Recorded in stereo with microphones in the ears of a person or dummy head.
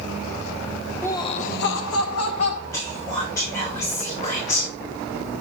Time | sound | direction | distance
1.0 | laughter | 10° left (ahead or behind) | 0.7 m
2.7 | whispering | 15° left (ahead or behind) | 4.5 m